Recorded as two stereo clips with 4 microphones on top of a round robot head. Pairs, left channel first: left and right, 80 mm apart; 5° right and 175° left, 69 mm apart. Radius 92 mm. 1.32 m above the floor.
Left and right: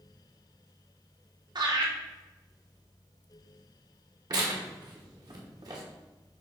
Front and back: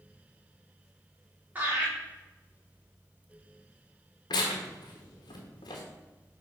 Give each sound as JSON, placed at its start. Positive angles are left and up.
{"t": 1.6, "sound": "laughter", "azimuth_deg": -120, "distance_m": 2.5}
{"t": 4.3, "sound": "tearing paper", "azimuth_deg": -40, "distance_m": 1.0}